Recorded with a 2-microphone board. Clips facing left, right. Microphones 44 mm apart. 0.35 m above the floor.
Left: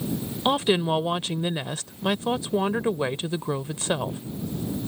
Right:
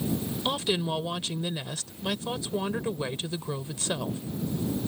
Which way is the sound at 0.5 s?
30° left (ahead or behind).